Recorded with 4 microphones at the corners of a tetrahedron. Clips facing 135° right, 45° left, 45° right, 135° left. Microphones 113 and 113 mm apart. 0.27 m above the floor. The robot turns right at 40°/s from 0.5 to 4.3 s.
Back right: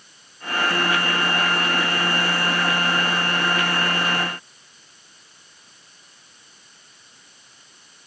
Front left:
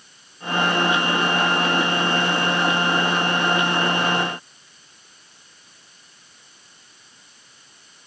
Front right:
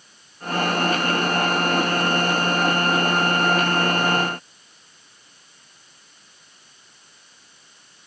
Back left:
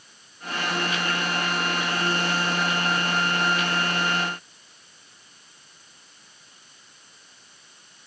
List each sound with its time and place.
Only background noise.